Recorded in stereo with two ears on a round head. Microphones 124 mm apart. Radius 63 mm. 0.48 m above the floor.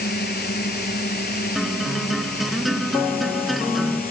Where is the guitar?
Centre (ahead or behind).